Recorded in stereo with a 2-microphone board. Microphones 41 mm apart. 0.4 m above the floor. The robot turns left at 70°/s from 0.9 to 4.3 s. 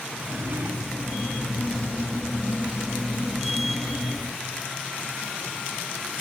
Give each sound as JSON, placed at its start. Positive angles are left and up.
{"t": 0.2, "sound": "a drawer", "side_deg": -60}